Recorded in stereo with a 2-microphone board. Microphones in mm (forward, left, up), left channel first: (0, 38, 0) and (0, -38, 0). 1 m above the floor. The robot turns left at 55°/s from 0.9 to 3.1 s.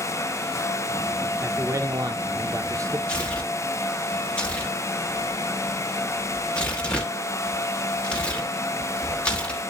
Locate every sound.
1.4 s a man speaking: 40° right, 1.0 m; by 3.0 s 125° right, 1.0 m
3.1 s tearing paper: 10° left (ahead or behind), 2.5 m; by 9.7 s 15° left (ahead or behind), 2.5 m